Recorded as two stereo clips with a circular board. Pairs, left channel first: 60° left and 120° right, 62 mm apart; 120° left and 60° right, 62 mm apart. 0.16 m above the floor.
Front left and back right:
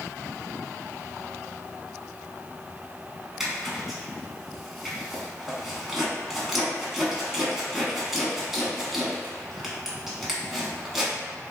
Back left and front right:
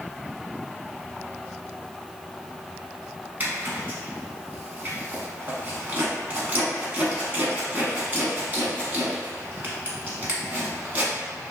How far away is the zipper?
About 0.8 m.